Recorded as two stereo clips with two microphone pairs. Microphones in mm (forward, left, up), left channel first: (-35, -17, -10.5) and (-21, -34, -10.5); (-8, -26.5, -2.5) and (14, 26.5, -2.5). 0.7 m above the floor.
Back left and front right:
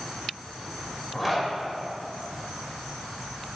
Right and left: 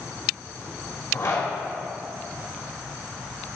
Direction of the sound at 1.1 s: 135° right.